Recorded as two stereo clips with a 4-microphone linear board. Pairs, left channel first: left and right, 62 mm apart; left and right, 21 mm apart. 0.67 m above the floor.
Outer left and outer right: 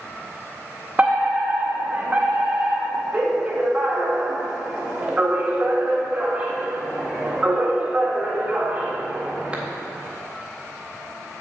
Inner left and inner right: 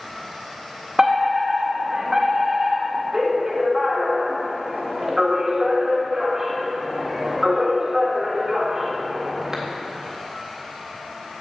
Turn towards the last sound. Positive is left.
turn(degrees=-20)  # may be behind; listen again after turning